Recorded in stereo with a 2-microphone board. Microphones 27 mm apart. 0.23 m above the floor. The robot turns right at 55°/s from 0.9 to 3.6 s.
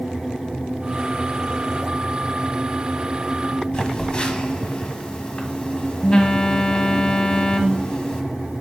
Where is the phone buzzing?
35° left (ahead or behind), 1.1 m.